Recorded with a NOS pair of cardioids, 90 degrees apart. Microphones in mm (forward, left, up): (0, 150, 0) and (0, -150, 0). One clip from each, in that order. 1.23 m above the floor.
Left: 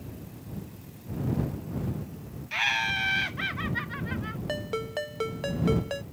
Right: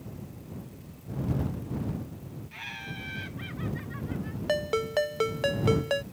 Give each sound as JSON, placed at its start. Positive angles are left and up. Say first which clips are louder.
{"t": 2.5, "sound": "laughter", "louder": "left 14 dB", "azimuth_deg": 70}
{"t": 4.5, "sound": "a ringtone", "louder": "right 6 dB", "azimuth_deg": -25}